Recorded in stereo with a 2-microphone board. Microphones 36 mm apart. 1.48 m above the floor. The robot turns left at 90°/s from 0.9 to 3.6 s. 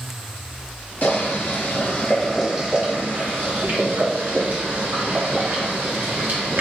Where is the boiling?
130° left, 1.0 m; by 6.6 s 105° right, 1.0 m.